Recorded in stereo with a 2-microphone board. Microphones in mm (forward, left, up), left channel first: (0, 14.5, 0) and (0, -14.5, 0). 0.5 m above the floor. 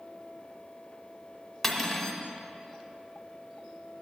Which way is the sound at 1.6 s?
5° left (ahead or behind).